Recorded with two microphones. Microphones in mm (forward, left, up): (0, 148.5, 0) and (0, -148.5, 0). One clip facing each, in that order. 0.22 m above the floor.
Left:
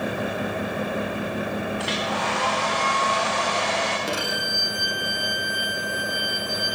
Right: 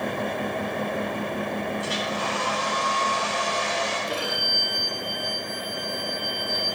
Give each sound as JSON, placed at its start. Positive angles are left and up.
{"t": 1.8, "sound": "a hair dryer", "side_deg": 85, "distance_m": 7.5}
{"t": 4.1, "sound": "a violin", "side_deg": 80, "distance_m": 4.5}